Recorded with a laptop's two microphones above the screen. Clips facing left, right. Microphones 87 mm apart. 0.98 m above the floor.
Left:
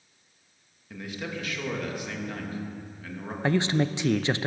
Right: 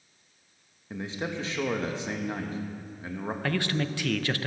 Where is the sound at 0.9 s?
25° right (ahead or behind), 1.4 m.